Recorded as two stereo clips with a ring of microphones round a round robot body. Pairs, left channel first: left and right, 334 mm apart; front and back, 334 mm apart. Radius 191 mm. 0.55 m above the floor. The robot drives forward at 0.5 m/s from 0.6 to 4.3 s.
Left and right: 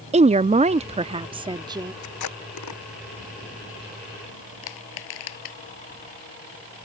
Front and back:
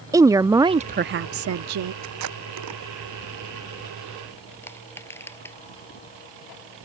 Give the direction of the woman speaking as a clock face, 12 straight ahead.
4 o'clock.